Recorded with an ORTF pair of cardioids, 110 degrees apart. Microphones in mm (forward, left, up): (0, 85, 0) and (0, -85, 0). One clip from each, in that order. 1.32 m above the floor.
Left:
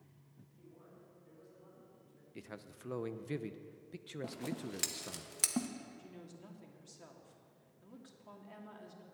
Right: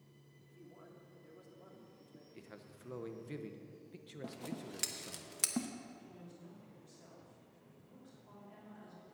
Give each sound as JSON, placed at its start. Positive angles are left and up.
{"t": 0.5, "sound": "a man speaking", "azimuth_deg": -70, "distance_m": 3.0}
{"t": 2.4, "sound": "a man speaking", "azimuth_deg": 25, "distance_m": 0.7}
{"t": 4.2, "sound": "scissors", "azimuth_deg": 5, "distance_m": 0.9}
{"t": 6.0, "sound": "a woman speaking", "azimuth_deg": 50, "distance_m": 2.5}